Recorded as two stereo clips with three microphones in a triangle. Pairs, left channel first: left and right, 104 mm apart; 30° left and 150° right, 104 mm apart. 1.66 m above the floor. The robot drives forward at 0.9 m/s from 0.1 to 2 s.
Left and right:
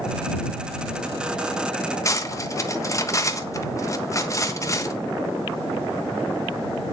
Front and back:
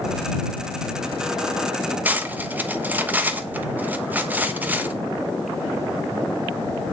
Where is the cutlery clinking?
140° left, 1.2 m.